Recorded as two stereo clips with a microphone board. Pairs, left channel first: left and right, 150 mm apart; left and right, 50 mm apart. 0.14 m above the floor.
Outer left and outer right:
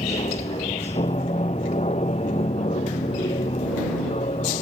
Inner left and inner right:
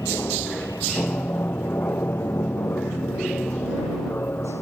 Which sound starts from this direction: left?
An aircraft, at 0.0 s.